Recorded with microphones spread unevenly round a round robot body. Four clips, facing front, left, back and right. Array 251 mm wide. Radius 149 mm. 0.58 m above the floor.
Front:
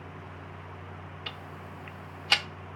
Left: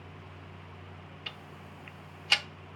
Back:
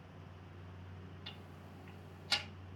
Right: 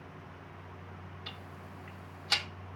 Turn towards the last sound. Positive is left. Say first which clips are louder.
# left 1 dB, front 11 dB
turn(degrees=0)